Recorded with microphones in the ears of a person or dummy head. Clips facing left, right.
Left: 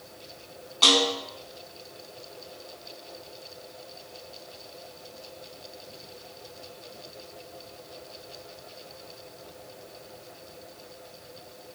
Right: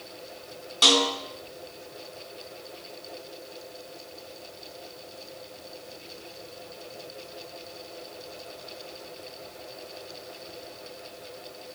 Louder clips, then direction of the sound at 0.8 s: Even; 15° right (ahead or behind).